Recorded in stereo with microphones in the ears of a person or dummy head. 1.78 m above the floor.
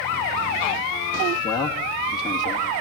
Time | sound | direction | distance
1.4 | a man speaking | 25° left (ahead or behind) | 2.5 m